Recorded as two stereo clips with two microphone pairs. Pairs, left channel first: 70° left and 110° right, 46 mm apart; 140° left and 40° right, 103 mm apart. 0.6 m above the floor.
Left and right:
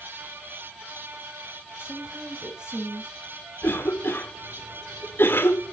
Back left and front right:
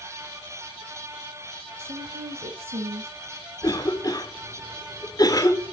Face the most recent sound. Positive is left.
turn(degrees=95)